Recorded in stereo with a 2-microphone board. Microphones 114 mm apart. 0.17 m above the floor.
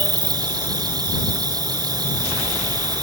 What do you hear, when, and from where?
0.0 s an insect: 35° right (ahead or behind)